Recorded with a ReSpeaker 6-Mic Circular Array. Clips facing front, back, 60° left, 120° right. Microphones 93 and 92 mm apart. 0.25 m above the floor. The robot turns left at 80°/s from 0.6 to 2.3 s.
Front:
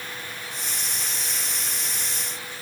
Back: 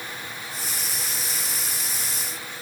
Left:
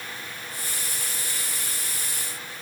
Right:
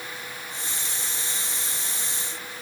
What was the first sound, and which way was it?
Only background noise.